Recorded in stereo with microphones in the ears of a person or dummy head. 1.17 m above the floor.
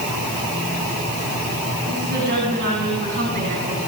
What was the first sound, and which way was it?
A woman speaking, 60° right (ahead or behind).